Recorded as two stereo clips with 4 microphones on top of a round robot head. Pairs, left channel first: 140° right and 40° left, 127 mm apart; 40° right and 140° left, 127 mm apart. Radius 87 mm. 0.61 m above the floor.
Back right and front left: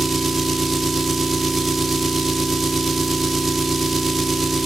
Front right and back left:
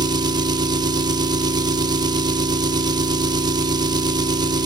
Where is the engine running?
130° left, 0.8 m.